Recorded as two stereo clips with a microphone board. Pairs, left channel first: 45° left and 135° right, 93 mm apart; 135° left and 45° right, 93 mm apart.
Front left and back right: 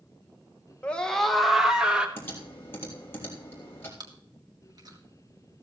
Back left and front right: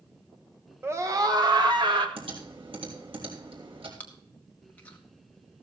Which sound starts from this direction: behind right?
Chewing, at 4.0 s.